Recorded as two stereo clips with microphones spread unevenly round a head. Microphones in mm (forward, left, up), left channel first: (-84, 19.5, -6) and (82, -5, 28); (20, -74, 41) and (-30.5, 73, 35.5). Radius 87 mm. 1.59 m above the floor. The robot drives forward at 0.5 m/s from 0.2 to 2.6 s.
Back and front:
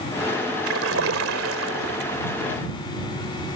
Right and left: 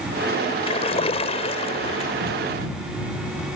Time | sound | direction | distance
0.7 | a splash | 15° right | ?